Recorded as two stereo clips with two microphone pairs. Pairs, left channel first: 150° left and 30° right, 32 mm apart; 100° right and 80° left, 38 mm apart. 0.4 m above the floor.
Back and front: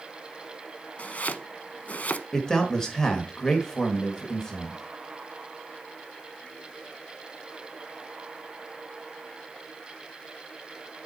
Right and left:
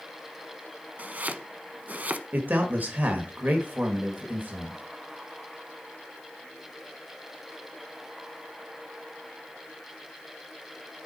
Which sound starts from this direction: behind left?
Chopping, at 1.0 s.